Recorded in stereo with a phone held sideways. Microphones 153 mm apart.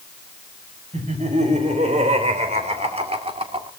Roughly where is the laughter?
Right.